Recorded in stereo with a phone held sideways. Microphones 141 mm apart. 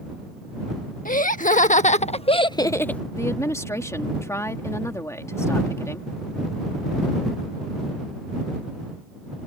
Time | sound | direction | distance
1.1 | laughter | 70° left (ahead or behind) | ?
3.1 | a woman speaking | 20° left (ahead or behind) | ?